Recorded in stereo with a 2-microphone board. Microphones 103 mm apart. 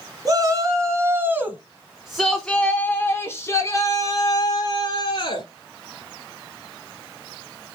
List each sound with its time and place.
0.2 s a shout: 40° right (ahead or behind), 1.8 m; by 5.5 s 55° left (ahead or behind), 2.5 m